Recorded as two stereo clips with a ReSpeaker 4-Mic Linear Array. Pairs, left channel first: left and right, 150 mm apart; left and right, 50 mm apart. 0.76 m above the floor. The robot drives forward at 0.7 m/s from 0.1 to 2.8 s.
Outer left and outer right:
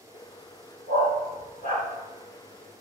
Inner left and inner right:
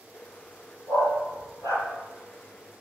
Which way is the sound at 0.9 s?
80° left.